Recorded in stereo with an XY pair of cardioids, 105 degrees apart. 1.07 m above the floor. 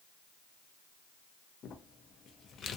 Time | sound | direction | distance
1.6 | crumpling | 60° left | 0.5 m